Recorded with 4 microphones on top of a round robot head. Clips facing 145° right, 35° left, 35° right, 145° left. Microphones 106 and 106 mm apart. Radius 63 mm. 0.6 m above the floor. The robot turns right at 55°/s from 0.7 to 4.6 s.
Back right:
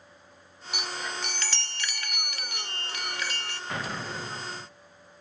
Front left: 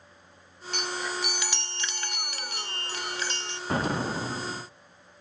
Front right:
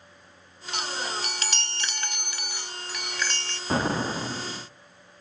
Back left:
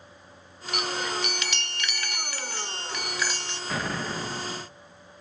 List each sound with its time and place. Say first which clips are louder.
0.7 s a chime: front left 3 dB, back left 2 dB; 70° right, 0.5 m; by 3.6 s 90° left, 0.5 m
3.7 s an explosion: front left 7 dB, front right 5 dB; 5° right, 0.7 m; by 4.6 s 45° left, 0.7 m